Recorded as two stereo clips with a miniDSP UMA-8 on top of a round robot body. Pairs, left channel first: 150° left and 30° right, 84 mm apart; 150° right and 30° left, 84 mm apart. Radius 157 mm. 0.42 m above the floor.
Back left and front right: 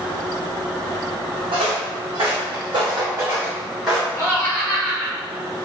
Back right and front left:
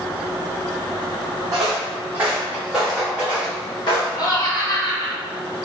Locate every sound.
1.5 s footsteps: 20° right, 1.3 m; by 4.1 s 120° right, 1.0 m
4.2 s laughter: 155° right, 1.9 m